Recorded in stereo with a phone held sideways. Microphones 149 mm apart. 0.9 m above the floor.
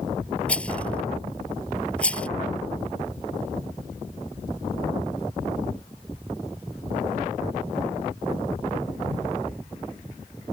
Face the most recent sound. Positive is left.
turn(degrees=10)  # may be behind; listen again after turning